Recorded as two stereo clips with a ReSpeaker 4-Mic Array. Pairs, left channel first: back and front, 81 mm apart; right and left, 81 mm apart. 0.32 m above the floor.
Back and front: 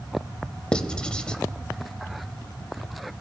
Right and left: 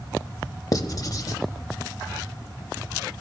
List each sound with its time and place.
0.7 s writing: 105° right, 0.7 m